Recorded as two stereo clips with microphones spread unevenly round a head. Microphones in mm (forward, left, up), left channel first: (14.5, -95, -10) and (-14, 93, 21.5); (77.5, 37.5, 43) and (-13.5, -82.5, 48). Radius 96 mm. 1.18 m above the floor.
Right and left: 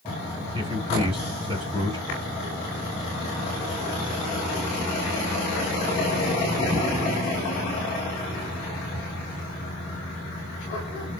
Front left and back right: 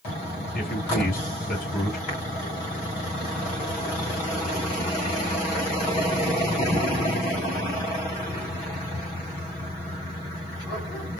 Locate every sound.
0.5 s a man speaking: 35° left, 4 m